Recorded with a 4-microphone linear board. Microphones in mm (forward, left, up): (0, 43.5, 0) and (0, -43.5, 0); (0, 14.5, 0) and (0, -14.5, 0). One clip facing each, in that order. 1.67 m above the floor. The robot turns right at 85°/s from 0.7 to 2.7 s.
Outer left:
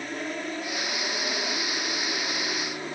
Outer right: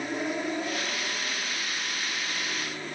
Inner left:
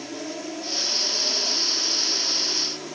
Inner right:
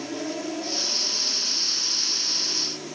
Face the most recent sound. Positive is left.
turn(degrees=160)